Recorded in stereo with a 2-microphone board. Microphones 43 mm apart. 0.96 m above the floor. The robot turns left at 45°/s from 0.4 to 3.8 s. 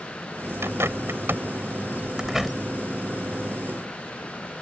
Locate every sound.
0.6 s a bird: 85° right; by 2.5 s centre (ahead or behind)